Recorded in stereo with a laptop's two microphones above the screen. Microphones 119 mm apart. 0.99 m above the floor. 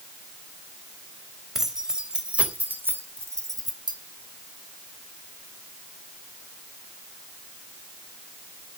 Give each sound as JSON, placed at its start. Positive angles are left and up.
{"t": 1.6, "sound": "keys jangling", "side_deg": 0, "distance_m": 4.0}